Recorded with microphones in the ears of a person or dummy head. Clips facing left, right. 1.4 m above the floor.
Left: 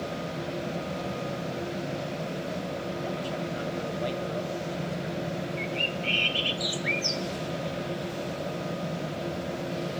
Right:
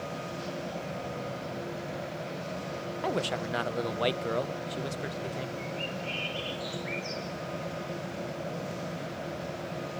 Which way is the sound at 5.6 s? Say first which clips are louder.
Left 4 dB; 70° left (ahead or behind).